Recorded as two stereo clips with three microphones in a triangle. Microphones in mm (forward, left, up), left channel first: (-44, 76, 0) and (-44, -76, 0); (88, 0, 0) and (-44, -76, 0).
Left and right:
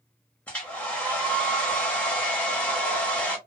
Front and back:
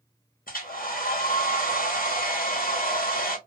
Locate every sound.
0.5 s a hair dryer: 10° left, 0.9 m